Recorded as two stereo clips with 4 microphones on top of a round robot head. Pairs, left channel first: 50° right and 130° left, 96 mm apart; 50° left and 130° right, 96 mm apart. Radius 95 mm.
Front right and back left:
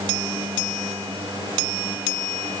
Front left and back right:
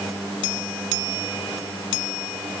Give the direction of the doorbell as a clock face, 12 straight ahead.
No doorbell in this recording.